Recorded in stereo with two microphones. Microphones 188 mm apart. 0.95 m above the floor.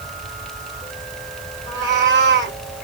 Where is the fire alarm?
I don't hear a fire alarm.